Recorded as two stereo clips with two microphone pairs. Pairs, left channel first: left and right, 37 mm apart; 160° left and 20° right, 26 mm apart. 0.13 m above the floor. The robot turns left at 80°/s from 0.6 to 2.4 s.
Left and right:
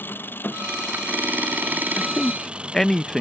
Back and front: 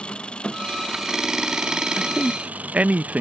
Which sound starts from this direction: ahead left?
A man speaking, at 2.0 s.